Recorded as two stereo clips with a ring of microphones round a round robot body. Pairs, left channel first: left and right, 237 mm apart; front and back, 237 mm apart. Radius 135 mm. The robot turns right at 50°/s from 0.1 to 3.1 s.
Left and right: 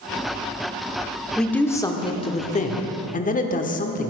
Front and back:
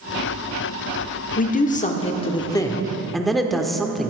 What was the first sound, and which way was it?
A man speaking, 5° left.